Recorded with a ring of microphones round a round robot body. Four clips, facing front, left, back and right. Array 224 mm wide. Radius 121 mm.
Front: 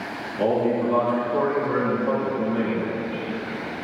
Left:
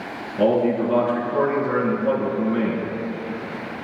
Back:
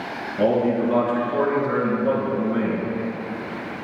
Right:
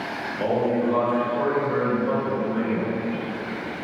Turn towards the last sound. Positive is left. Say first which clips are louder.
# left 4 dB, back 2 dB
turn(degrees=130)